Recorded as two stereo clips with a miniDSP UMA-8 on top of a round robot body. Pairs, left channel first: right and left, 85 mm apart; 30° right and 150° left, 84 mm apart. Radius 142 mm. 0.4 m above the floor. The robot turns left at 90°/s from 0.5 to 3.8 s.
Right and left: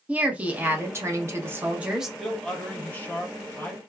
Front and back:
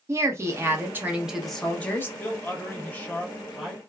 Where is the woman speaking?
145° left, 1.0 m; by 2.1 s 5° left, 1.0 m.